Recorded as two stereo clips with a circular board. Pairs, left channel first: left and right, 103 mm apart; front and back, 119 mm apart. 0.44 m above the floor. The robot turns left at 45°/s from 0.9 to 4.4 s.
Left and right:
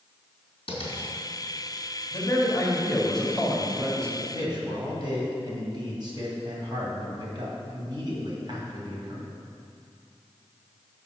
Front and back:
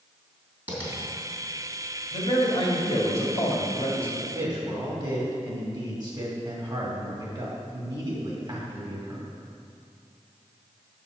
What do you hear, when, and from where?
0.7 s tapping: 105° left, 3 m
2.1 s a man speaking: 50° left, 2 m; by 4.1 s 35° right, 2 m
4.2 s a man speaking: 120° right, 2.5 m; by 9.3 s 130° right, 2.5 m